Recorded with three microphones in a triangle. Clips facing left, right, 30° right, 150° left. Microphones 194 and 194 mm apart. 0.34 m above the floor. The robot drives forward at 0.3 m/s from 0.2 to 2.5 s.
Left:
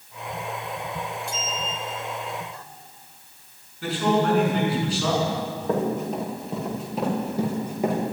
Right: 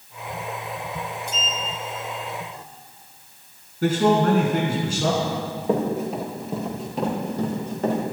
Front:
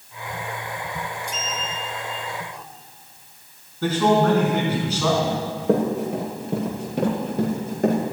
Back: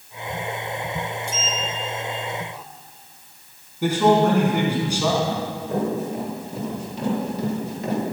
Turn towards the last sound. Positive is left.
turn(degrees=10)